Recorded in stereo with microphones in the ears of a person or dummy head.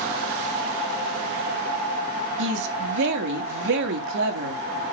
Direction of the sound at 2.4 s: 70° right (ahead or behind).